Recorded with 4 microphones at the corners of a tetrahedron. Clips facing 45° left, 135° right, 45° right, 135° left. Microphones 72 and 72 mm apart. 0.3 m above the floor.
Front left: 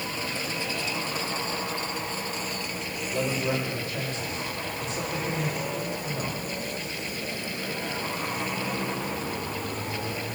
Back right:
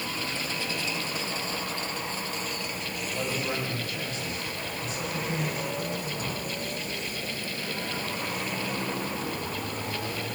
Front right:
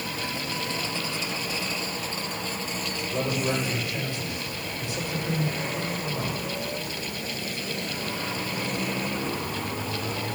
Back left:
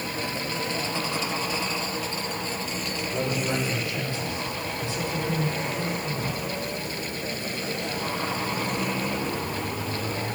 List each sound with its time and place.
3.1 s a man speaking: 10° right, 9 m